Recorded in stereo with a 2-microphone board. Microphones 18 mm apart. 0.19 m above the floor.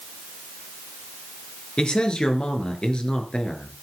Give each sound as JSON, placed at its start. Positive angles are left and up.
{"t": 1.8, "sound": "a man speaking", "side_deg": 65, "distance_m": 2.5}